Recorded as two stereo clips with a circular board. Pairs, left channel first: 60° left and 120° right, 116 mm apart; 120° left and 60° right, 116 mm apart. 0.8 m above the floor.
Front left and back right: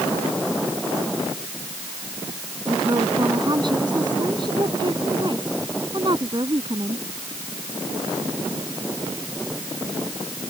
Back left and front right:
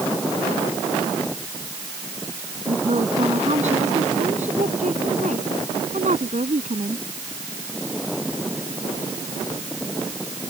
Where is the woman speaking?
70° right.